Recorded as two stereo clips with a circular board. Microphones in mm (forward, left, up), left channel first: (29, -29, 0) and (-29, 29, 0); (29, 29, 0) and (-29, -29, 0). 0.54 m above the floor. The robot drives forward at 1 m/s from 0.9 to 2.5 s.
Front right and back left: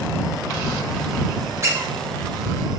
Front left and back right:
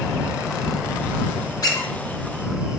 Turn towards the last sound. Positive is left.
turn(degrees=140)